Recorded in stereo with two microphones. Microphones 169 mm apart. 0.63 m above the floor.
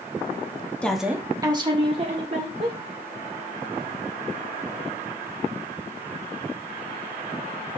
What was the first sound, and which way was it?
A woman speaking, 10° left (ahead or behind).